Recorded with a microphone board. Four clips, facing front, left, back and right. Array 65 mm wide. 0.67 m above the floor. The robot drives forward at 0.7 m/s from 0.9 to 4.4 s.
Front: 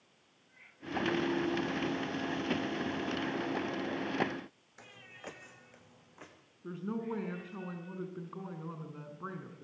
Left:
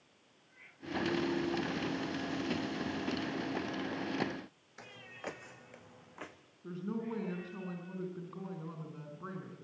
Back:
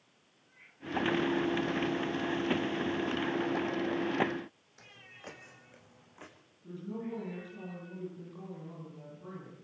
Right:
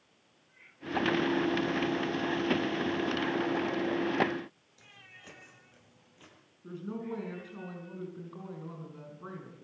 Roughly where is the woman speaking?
Ahead.